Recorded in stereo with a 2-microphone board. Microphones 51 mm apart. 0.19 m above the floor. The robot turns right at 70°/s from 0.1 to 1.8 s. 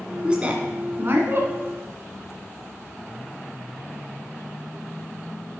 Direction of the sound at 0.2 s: 15° right (ahead or behind).